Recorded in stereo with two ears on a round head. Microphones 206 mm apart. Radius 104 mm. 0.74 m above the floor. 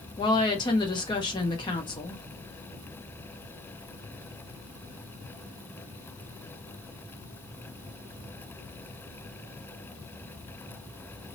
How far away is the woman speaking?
About 0.7 m.